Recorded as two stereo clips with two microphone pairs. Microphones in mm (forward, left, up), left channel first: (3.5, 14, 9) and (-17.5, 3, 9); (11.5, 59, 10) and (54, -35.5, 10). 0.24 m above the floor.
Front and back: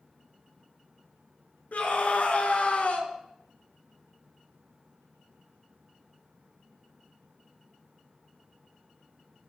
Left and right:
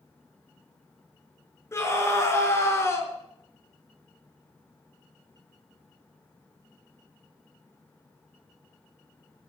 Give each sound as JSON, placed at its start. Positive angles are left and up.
{"t": 1.7, "sound": "a scream", "azimuth_deg": 50, "distance_m": 3.0}